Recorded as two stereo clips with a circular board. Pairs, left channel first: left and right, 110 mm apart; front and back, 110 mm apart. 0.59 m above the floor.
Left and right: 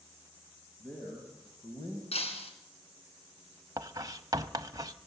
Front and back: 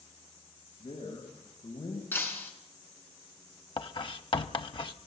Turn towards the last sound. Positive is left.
turn(degrees=-35)